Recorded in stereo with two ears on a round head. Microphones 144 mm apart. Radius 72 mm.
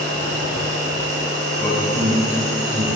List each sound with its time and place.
0.0 s an insect: 75° right (ahead or behind), 3 m
1.6 s a man speaking: 15° left (ahead or behind), 3 m